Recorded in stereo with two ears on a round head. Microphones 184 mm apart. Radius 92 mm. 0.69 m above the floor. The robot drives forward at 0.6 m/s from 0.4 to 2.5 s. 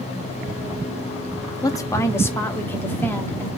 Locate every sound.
1.6 s a woman speaking: 20° left (ahead or behind), 0.6 m; by 3.5 s 10° left (ahead or behind), 1.0 m